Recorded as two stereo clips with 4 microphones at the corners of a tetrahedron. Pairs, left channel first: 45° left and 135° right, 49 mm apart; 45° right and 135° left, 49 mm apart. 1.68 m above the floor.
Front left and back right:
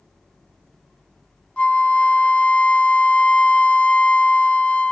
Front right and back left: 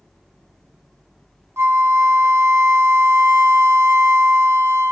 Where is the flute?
110° left, 0.5 m.